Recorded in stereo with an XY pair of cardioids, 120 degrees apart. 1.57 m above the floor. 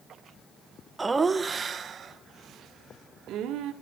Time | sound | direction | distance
1.0 | laughter | 15° right | 1.9 m